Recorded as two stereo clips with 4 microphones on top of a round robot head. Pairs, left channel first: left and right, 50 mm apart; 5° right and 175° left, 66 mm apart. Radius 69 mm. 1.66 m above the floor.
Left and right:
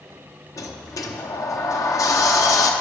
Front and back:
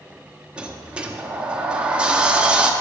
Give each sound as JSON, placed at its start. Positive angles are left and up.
{"t": 0.6, "sound": "a sliding door", "azimuth_deg": 100, "distance_m": 1.0}